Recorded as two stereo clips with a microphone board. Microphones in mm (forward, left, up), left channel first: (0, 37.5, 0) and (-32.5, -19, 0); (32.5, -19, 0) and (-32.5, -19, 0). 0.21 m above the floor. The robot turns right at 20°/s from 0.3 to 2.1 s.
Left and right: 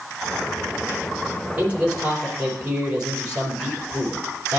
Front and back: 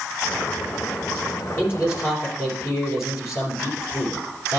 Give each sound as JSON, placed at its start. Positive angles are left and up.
{"t": 1.6, "sound": "a man speaking", "azimuth_deg": -55, "distance_m": 6.0}